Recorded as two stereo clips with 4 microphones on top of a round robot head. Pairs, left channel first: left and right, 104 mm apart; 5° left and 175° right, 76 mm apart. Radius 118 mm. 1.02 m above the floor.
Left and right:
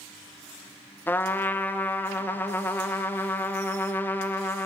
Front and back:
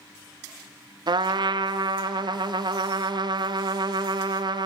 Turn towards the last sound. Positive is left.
turn(degrees=160)